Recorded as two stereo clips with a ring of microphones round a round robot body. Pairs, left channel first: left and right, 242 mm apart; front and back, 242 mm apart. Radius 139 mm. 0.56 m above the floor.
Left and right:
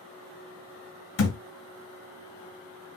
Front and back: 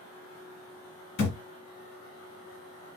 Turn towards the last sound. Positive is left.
turn(degrees=60)